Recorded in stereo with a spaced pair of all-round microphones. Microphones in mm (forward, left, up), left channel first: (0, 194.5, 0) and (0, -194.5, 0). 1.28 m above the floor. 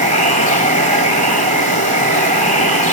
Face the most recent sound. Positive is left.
turn(degrees=-75)  # may be behind; listen again after turning